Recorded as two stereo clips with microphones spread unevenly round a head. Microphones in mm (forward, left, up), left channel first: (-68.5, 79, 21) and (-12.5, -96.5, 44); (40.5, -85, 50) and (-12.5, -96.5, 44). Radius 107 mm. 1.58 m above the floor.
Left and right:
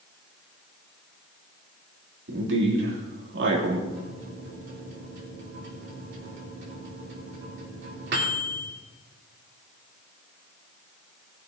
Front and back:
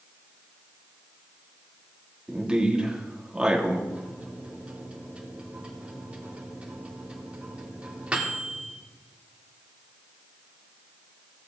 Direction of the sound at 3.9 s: 100° right.